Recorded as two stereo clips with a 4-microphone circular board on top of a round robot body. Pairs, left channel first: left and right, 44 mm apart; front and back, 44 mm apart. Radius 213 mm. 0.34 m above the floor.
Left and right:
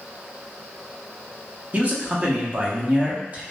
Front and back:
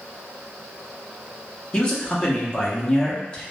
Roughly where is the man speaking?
Ahead right.